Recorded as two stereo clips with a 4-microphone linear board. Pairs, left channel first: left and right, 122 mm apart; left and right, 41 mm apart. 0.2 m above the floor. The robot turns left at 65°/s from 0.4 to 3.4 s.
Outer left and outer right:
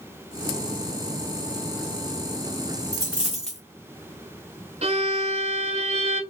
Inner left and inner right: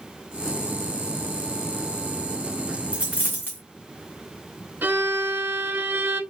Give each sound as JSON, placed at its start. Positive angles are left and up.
{"t": 2.9, "sound": "a dropped coin", "azimuth_deg": 155, "distance_m": 1.5}
{"t": 4.8, "sound": "a violin", "side_deg": -60, "distance_m": 0.7}